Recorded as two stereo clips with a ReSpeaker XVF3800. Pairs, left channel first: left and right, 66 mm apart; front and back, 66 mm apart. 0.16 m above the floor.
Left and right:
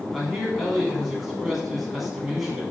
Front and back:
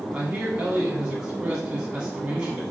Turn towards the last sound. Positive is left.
turn(degrees=-170)